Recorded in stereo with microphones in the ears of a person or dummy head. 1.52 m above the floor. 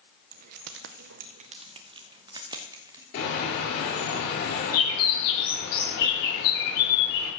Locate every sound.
0.3 s keys jangling: 45° right (ahead or behind), 0.6 m; by 3.0 s 10° right (ahead or behind), 1.8 m
3.1 s a bird: 45° left (ahead or behind), 7.5 m